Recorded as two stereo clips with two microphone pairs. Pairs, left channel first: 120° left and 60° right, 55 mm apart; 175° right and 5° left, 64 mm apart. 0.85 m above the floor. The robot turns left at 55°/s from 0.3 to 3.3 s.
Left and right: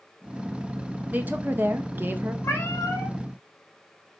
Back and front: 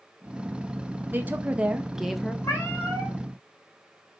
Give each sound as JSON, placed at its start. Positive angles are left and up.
{"t": 1.1, "sound": "a woman speaking", "azimuth_deg": -25, "distance_m": 0.5}
{"t": 2.4, "sound": "a cat meowing", "azimuth_deg": 145, "distance_m": 1.4}